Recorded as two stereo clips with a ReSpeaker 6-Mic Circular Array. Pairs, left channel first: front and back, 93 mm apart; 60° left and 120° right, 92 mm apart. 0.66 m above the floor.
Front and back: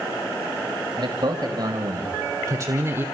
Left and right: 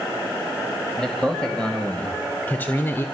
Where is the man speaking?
145° left, 3 m; by 3.0 s 120° left, 1.5 m.